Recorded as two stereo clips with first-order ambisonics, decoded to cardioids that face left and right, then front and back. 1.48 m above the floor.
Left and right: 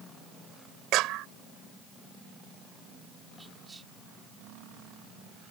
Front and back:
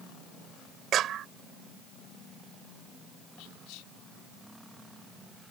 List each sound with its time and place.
0.9 s a clap: 125° right
3.4 s whispering: 10° right